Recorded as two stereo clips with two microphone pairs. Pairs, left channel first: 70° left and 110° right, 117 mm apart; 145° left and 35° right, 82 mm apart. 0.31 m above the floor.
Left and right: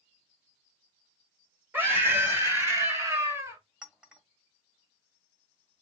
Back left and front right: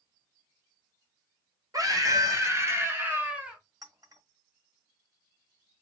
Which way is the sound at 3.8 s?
25° right.